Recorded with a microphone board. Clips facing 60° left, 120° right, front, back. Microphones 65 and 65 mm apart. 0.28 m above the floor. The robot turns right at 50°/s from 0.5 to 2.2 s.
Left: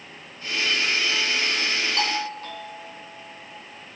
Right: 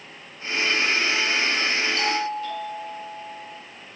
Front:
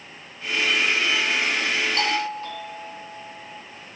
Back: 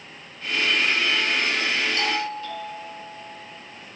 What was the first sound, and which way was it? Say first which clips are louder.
A doorbell: right 2 dB, front 1 dB; 25° left.